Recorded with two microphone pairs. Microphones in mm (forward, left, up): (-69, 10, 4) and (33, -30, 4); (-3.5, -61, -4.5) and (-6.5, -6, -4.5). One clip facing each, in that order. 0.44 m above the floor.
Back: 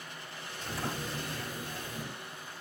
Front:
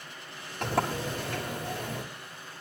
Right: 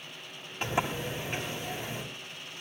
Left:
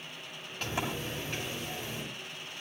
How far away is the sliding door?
About 6.5 m.